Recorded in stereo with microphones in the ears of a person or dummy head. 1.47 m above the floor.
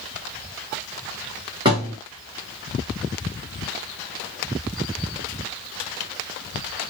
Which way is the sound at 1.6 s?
20° right (ahead or behind).